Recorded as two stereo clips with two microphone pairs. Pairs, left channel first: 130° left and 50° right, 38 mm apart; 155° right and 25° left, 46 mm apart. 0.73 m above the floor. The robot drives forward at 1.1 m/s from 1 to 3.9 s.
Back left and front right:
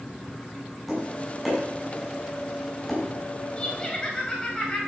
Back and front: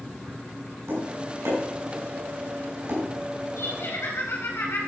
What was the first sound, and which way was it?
Tapping, 35° left.